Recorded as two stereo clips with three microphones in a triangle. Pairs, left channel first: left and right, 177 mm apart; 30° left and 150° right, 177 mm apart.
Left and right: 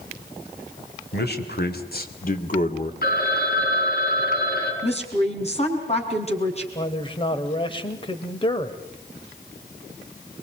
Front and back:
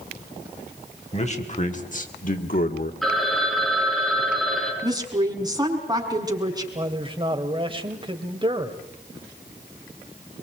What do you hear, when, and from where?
1.1 s a man speaking: 80° left, 3.5 m; by 2.9 s 45° left, 2.5 m
3.0 s a phone ringing: 120° left, 7 m
4.8 s a woman speaking: 145° left, 5.5 m
6.8 s a man speaking: 150° left, 2.5 m